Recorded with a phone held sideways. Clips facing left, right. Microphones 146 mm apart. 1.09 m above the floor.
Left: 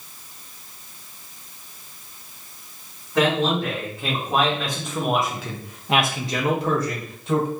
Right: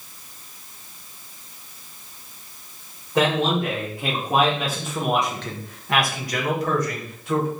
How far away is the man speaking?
About 1.7 m.